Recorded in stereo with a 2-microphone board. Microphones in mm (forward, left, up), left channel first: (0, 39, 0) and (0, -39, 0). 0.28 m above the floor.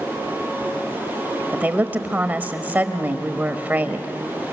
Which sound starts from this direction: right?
A woman speaking, at 1.5 s.